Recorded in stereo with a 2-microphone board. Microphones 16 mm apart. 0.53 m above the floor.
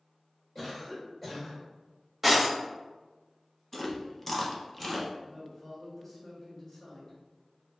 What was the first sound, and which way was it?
A cough, 20° left (ahead or behind).